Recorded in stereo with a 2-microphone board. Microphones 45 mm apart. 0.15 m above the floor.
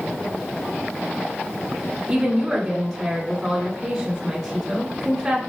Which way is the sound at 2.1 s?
20° right (ahead or behind).